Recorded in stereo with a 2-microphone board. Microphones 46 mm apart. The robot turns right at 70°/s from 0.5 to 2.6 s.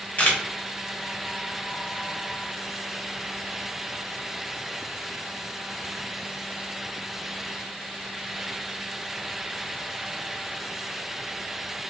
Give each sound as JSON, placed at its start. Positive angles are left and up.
{"t": 0.2, "sound": "a camera shutter", "side_deg": 40, "distance_m": 0.8}